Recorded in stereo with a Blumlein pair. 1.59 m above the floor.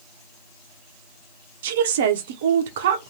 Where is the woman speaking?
55° right, 0.7 m.